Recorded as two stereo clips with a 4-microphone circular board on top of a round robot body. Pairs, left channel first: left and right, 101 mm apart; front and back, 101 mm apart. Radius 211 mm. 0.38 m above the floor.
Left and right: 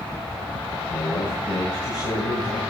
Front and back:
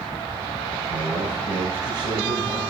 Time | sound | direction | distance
0.9 | a man speaking | 135° left | 4.5 m